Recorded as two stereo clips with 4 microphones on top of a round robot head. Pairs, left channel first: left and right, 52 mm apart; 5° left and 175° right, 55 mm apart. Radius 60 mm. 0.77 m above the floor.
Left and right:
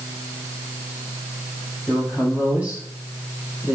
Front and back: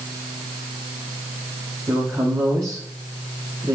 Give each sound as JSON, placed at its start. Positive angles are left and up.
{"t": 1.9, "sound": "a woman speaking", "azimuth_deg": -150, "distance_m": 6.5}